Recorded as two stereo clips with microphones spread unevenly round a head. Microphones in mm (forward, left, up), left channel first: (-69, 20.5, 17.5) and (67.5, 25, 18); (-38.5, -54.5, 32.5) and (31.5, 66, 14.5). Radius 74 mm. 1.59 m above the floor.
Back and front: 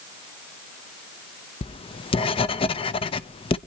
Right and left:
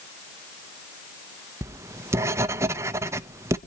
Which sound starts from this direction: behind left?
Writing, at 1.6 s.